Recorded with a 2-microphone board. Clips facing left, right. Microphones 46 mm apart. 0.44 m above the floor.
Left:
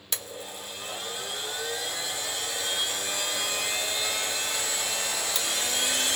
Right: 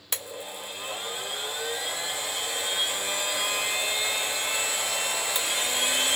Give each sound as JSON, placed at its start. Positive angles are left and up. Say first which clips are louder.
{"t": 0.1, "sound": "a blender", "louder": "right 1 dB", "side_deg": -20, "distance_m": 0.9}